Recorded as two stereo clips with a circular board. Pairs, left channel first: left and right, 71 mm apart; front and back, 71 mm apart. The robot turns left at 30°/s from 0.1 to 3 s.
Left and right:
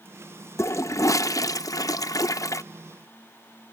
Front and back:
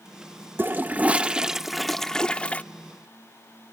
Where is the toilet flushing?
125° left, 0.6 m; by 2.6 s 65° left, 0.6 m.